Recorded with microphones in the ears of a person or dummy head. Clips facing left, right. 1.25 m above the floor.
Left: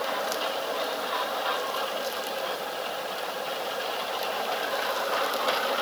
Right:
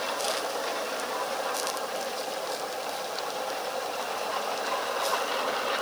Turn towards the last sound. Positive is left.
No sound to turn to.